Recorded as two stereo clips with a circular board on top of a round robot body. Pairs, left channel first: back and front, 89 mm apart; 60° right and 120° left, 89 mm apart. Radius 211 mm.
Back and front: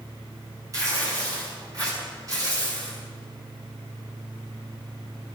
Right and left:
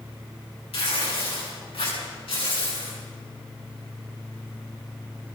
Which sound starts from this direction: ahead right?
Tearing paper, at 0.7 s.